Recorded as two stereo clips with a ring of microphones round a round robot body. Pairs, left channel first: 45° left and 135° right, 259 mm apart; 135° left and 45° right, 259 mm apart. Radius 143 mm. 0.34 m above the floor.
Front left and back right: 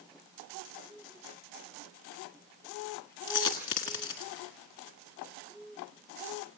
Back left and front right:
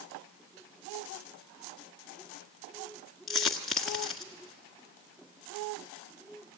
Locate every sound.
3.3 s a dropped coin: 45° left, 1.3 m